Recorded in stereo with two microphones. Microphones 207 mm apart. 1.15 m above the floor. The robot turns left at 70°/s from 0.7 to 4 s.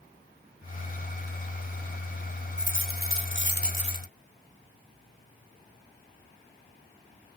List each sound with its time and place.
2.6 s a dropped coin: 120° left; by 4.1 s 20° left